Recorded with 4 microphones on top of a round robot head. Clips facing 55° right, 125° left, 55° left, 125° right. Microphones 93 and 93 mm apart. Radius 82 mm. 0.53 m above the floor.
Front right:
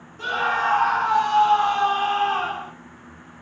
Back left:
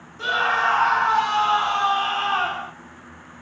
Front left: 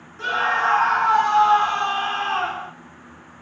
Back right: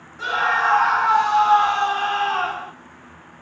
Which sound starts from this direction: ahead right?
A scream, at 0.2 s.